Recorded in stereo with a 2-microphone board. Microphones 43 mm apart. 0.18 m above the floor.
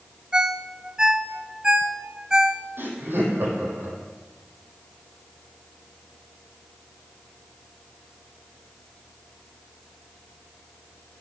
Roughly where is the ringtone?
Centre.